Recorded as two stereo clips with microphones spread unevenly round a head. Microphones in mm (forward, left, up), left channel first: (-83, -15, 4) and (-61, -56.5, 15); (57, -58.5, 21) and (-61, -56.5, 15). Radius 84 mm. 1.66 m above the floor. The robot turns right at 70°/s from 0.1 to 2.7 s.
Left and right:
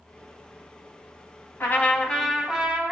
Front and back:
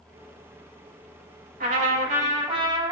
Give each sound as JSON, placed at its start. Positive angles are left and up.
{"t": 1.6, "sound": "a trumpet", "azimuth_deg": 155, "distance_m": 3.5}